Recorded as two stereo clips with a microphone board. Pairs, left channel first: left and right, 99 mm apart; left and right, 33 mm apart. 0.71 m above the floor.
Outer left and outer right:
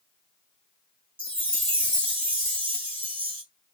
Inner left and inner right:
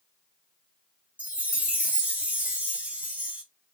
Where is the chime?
50° right (ahead or behind), 1.2 m.